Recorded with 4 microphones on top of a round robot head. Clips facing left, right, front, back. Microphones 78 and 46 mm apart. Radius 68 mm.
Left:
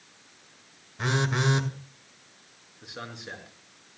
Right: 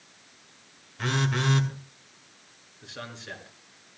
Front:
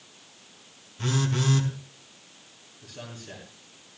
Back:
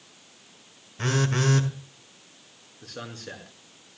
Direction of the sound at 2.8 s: 165° left.